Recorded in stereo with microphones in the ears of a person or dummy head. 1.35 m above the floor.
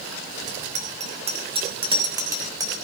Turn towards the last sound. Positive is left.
turn(degrees=-20)  # may be behind; listen again after turning